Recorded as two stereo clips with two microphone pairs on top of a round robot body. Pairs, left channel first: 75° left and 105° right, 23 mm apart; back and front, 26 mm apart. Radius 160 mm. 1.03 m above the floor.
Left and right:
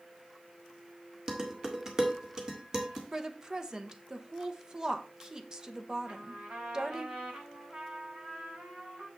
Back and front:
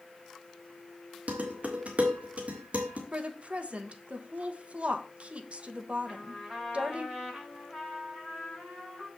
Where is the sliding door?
No sliding door in this recording.